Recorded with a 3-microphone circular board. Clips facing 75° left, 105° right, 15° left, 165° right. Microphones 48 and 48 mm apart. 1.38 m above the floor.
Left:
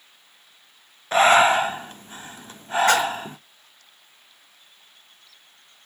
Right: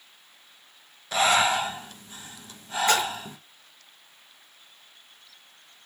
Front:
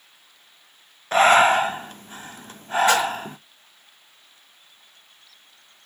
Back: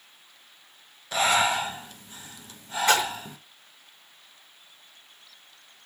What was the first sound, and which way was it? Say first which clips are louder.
Breathing: left 7 dB, front 8 dB; 35° left.